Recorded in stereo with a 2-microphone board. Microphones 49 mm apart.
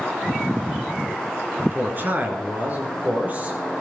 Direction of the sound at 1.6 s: 40° right (ahead or behind).